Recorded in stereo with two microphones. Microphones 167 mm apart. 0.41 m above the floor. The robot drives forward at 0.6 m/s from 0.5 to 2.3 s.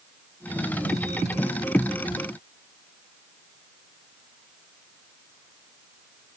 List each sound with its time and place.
Only background noise.